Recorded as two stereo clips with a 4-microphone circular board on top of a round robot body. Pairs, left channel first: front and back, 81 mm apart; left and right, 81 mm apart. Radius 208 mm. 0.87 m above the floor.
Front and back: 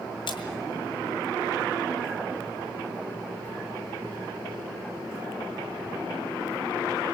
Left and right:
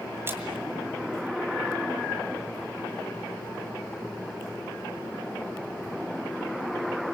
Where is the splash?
25° right, 2 m.